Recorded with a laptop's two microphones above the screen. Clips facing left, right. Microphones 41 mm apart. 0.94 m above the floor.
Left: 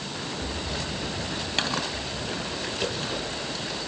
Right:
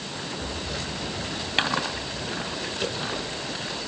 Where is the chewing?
25° right (ahead or behind).